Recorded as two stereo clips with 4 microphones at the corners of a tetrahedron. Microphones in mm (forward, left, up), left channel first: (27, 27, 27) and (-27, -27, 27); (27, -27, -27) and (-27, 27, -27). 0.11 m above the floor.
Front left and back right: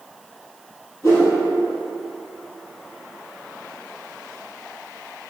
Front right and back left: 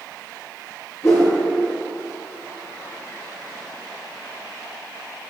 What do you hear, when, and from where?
1.0 s a whoosh: 5° left, 1.5 m